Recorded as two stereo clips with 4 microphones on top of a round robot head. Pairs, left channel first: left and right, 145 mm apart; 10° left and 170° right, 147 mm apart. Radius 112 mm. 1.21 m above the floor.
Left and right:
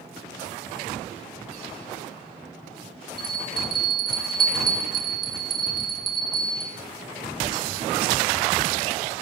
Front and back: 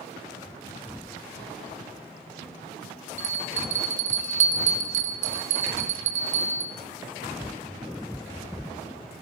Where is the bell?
150° right, 0.7 m.